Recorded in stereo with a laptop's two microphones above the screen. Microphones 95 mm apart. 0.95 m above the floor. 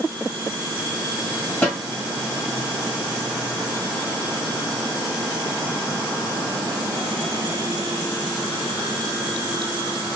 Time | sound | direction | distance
1.6 | a snare drum | 15° left (ahead or behind) | 1.6 m